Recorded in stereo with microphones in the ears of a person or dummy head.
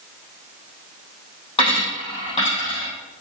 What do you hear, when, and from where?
1.6 s a dropped coin: 25° left (ahead or behind), 4 m